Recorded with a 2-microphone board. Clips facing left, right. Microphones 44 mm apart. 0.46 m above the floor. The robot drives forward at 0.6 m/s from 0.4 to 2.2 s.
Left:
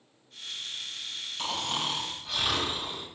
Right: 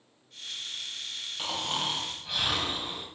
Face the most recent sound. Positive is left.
turn(degrees=-10)  # may be behind; listen again after turning